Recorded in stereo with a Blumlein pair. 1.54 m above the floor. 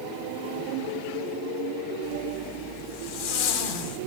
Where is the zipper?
55° left, 6 m.